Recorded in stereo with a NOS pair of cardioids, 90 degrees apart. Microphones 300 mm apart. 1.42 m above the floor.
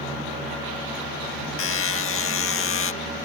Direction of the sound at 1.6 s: 50° left.